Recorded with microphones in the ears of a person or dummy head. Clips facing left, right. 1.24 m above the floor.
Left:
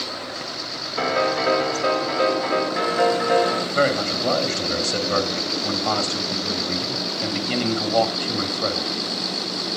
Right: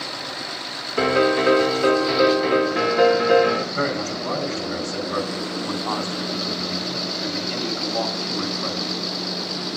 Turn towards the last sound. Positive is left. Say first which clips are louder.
# left 4 dB
turn(degrees=60)  # may be behind; listen again after turning